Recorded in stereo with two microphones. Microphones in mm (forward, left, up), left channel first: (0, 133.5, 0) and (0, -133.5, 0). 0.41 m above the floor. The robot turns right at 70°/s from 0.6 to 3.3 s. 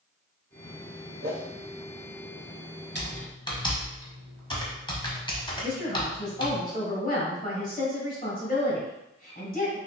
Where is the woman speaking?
35° left (ahead or behind), 2.0 m.